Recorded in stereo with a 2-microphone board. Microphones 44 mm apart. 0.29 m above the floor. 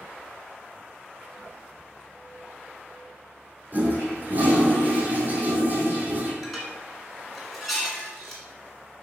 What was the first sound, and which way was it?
A toilet flushing, 40° right (ahead or behind).